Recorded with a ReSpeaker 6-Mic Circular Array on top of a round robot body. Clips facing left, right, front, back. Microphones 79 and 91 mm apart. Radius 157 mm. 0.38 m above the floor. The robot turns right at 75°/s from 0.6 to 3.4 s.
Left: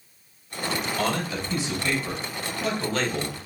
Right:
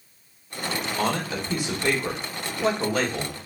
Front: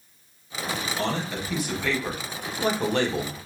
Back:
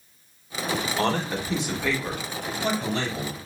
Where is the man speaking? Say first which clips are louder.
Right 3 dB, back 3 dB; 165° right, 1.4 m; by 3.4 s 15° left, 1.4 m.